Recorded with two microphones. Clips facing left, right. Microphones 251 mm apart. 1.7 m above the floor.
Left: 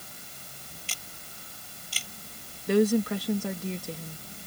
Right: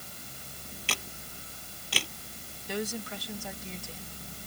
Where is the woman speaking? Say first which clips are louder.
Left 13 dB; 70° left (ahead or behind).